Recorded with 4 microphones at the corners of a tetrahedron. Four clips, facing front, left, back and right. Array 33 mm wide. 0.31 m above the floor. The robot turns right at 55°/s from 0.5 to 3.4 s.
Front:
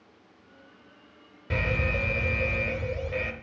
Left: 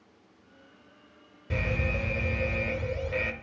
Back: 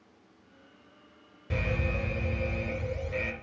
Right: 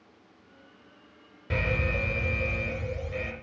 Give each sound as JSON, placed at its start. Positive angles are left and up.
{"t": 1.5, "sound": "an alarm", "azimuth_deg": -50, "distance_m": 0.7}